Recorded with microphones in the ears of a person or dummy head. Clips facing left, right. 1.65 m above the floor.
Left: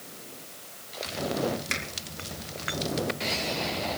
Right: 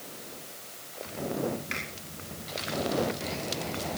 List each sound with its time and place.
1.7 s a finger snap: 65° left (ahead or behind), 5.5 m